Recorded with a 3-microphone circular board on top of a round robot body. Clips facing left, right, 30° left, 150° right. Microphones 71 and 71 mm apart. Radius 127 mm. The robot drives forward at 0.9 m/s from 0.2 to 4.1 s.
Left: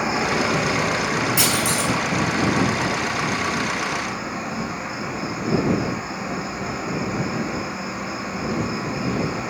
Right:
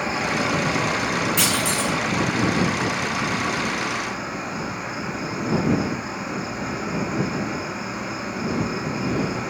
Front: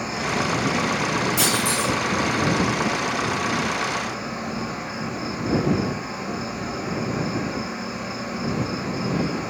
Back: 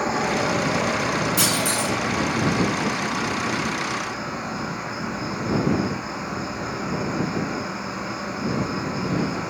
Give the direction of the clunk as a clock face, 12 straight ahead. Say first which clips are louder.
Left 1 dB, front 1 dB; 6 o'clock.